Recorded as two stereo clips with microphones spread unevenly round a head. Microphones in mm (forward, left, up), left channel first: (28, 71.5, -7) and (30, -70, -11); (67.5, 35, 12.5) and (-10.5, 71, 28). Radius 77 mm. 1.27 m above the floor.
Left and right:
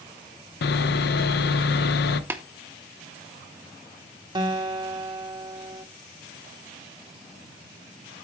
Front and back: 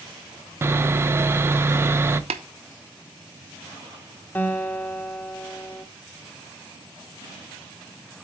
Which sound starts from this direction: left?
Sawing, at 0.6 s.